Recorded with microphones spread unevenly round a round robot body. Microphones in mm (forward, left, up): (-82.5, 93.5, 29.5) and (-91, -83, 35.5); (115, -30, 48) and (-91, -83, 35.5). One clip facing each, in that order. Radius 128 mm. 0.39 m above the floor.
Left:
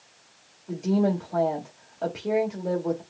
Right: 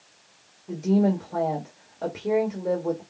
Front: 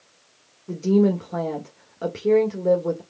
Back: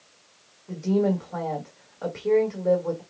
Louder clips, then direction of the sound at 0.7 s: Right 2 dB, front 4 dB; 10° right.